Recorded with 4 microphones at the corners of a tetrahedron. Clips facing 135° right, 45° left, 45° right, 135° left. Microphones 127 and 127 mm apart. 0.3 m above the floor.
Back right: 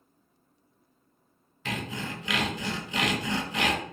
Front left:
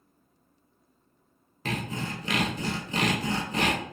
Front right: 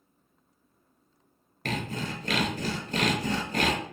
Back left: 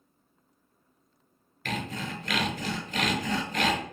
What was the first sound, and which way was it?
Sawing, straight ahead.